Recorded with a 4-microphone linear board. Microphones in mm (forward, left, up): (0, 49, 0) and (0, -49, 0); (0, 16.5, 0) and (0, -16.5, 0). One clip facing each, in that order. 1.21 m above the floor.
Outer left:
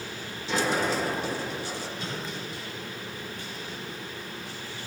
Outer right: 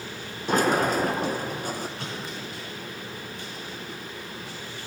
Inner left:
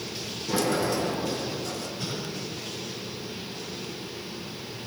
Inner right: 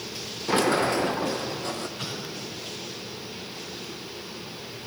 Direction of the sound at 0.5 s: 50° right (ahead or behind).